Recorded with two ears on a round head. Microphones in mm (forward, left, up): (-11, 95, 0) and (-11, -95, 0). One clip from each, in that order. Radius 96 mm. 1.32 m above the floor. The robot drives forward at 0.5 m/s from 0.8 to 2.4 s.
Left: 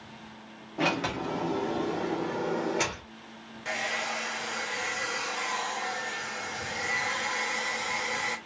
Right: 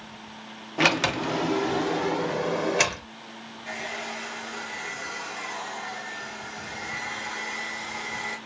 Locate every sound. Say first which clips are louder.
0.8 s a sliding door: right 6 dB; 55° right (ahead or behind), 0.6 m; by 3.1 s 45° right (ahead or behind), 0.8 m
3.6 s a hair dryer: left 3 dB; 50° left (ahead or behind), 0.9 m